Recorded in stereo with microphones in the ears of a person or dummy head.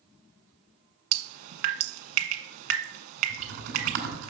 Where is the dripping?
55° right (ahead or behind), 1.4 m.